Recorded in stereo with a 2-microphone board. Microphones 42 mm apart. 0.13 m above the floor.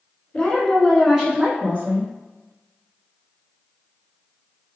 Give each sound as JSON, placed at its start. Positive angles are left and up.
{"t": 0.3, "sound": "a woman speaking", "side_deg": 25, "distance_m": 1.3}